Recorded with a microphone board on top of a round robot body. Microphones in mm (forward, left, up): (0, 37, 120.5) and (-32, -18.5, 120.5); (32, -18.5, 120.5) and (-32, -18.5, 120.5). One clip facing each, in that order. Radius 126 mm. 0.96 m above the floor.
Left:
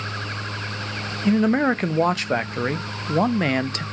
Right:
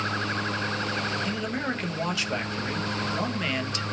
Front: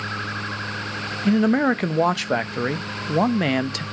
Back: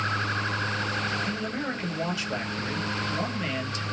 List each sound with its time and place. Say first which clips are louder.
1.2 s a man speaking: left 11 dB, front 12 dB; 20° left, 0.5 m